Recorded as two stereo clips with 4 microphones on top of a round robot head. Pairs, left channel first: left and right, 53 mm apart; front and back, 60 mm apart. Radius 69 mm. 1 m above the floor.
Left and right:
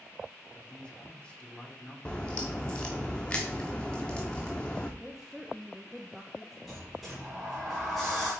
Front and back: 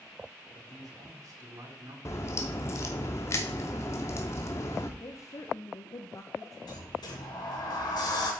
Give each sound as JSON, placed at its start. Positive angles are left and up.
{"t": 0.6, "sound": "a man speaking", "azimuth_deg": 160, "distance_m": 3.0}
{"t": 2.0, "sound": "a crack", "azimuth_deg": 15, "distance_m": 0.6}
{"t": 5.0, "sound": "a woman speaking", "azimuth_deg": 0, "distance_m": 0.8}
{"t": 6.7, "sound": "a sliding door", "azimuth_deg": 0, "distance_m": 2.5}